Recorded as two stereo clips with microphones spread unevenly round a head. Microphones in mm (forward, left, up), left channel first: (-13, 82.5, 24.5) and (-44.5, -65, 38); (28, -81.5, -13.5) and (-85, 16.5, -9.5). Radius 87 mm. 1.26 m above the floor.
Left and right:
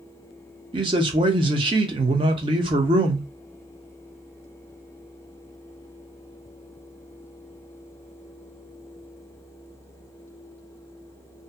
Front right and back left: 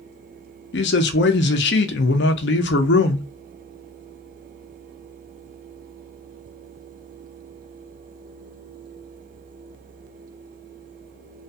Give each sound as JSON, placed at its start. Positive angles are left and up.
{"t": 0.7, "sound": "a man speaking", "azimuth_deg": -40, "distance_m": 0.5}